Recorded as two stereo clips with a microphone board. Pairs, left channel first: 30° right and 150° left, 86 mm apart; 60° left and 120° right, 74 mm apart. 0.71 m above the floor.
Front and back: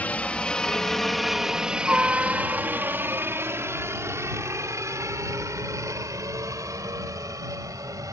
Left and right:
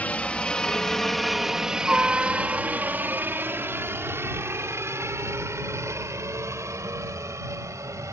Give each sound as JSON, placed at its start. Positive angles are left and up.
{"t": 0.0, "sound": "a helicopter", "azimuth_deg": 20}